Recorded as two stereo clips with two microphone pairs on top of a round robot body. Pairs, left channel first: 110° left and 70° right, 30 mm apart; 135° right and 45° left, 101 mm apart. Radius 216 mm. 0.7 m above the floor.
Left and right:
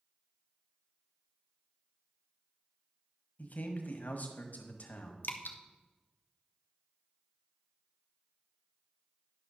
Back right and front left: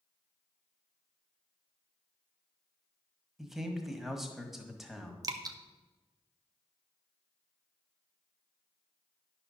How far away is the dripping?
About 0.6 m.